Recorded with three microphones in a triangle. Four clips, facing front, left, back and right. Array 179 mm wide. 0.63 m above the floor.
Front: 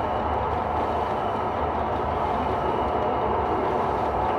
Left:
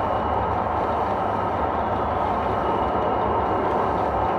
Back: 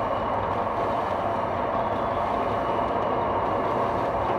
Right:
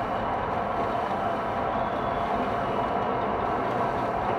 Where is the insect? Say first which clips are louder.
Left 5 dB, front 1 dB; 85° left, 1.0 m.